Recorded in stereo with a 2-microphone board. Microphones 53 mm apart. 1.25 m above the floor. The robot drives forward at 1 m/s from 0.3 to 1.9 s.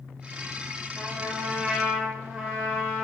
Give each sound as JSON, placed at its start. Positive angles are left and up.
{"t": 1.0, "sound": "a trumpet", "side_deg": -10, "distance_m": 5.0}